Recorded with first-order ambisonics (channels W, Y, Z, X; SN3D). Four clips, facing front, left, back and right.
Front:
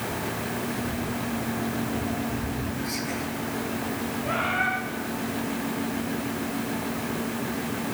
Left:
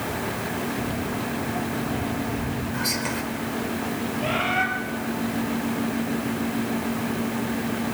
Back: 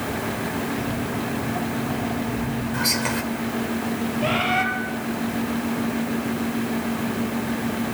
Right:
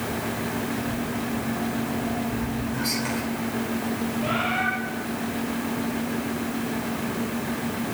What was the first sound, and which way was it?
Footsteps, 155° left.